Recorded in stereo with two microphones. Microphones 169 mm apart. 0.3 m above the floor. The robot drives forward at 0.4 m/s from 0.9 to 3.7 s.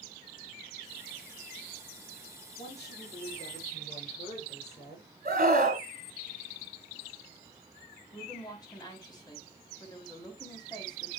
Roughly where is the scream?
Right.